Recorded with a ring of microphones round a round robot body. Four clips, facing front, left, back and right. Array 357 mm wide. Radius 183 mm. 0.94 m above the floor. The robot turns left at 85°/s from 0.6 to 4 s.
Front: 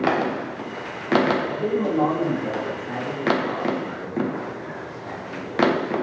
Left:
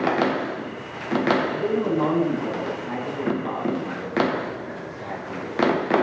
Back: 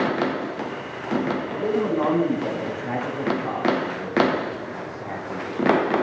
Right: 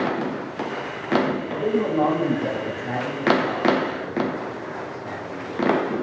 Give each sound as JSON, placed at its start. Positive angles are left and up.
{"t": 1.5, "sound": "a man speaking", "azimuth_deg": -25, "distance_m": 5.0}